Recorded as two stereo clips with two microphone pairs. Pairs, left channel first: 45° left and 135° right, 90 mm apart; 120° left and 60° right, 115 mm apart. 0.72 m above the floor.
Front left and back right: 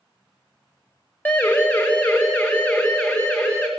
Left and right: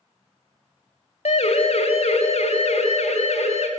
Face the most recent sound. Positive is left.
turn(degrees=120)